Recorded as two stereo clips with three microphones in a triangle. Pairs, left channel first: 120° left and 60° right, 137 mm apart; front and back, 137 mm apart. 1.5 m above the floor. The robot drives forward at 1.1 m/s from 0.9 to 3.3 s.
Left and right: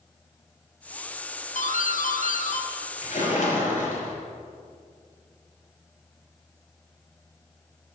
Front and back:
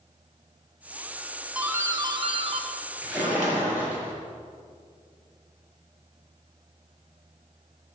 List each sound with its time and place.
1.6 s a doorbell: 100° left, 1.2 m; by 4.0 s 150° left, 2.5 m
3.0 s a splash: 100° left, 5.5 m